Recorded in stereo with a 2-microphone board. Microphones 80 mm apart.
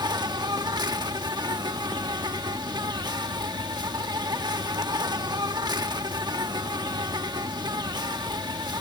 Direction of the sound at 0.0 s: 70° right (ahead or behind).